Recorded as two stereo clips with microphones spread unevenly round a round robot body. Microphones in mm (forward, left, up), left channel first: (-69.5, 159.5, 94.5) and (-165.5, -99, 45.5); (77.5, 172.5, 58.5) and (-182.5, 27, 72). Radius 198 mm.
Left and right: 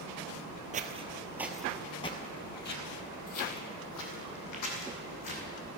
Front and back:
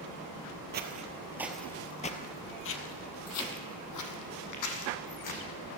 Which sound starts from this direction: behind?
Footsteps, at 0.7 s.